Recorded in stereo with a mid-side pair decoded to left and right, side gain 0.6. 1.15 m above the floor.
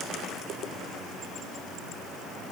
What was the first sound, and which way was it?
Only background noise.